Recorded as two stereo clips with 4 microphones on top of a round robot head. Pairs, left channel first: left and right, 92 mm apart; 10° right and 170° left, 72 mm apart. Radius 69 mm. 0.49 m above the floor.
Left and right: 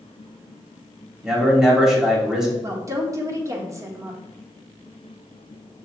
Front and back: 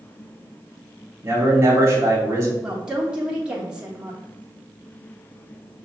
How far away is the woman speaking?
About 1.2 m.